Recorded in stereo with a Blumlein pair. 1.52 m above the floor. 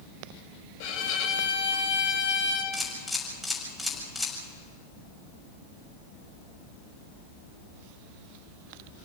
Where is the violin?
45° left, 3 m.